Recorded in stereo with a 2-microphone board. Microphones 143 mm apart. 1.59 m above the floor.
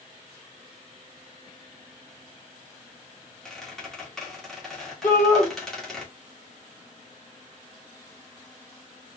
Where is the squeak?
5° left (ahead or behind), 2 m.